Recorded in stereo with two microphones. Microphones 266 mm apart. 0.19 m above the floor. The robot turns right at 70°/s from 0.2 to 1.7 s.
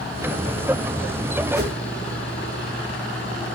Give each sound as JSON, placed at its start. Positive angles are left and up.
{"t": 1.6, "sound": "a whoosh", "side_deg": -35, "distance_m": 0.7}